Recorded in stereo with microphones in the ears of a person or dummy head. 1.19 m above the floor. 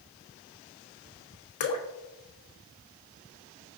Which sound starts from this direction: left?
Dripping, at 1.6 s.